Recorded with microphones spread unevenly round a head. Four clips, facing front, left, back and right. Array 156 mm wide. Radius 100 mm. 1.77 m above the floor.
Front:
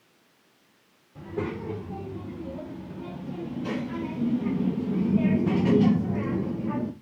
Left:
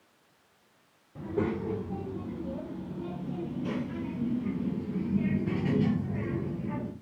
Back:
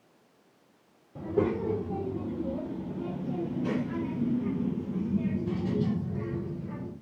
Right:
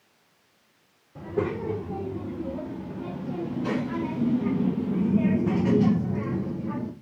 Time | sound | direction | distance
1.1 | a child speaking | 170° right | 3 m